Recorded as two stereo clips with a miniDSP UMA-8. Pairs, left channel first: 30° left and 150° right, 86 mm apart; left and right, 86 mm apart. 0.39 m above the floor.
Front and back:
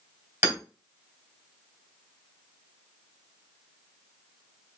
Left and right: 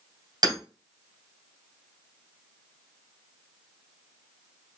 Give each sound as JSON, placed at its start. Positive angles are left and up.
{"t": 0.4, "sound": "hammering", "azimuth_deg": -100, "distance_m": 1.7}